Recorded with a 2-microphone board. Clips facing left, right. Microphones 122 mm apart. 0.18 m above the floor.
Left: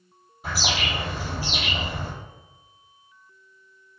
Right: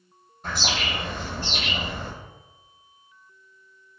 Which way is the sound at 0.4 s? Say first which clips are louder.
Left 1 dB; 10° left (ahead or behind).